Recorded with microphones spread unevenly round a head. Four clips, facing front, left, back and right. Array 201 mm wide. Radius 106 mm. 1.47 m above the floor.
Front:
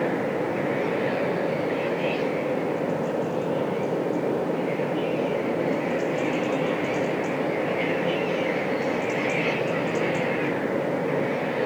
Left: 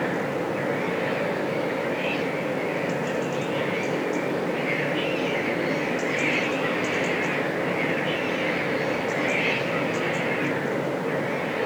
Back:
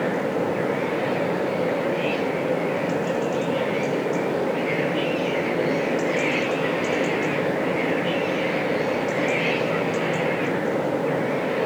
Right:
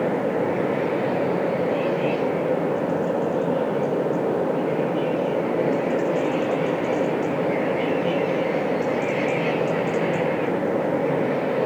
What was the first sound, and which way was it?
Only background noise.